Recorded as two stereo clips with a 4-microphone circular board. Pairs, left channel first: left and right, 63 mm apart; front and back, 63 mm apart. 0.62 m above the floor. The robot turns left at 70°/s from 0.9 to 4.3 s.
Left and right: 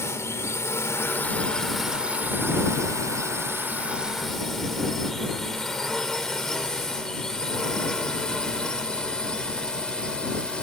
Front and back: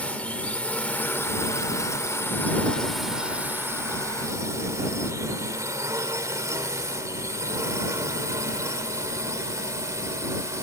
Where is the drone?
65° left; by 10.7 s 160° left.